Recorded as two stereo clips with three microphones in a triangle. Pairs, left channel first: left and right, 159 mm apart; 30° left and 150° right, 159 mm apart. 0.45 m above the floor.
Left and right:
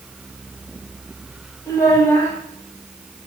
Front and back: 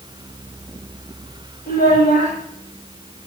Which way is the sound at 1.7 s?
20° left.